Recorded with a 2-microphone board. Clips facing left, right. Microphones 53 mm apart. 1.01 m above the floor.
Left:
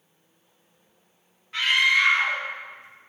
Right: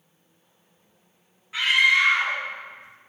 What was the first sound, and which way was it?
A scream, 5° right (ahead or behind).